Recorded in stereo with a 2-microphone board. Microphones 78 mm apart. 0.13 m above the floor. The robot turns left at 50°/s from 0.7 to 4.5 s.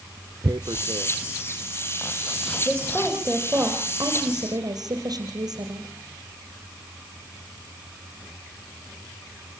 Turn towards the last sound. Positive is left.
turn(degrees=-75)